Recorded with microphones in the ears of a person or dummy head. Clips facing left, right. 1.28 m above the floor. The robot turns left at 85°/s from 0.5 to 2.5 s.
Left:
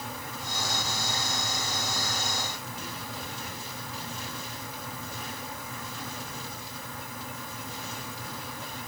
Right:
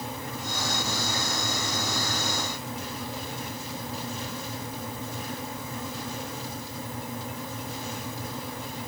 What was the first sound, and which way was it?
Only background noise.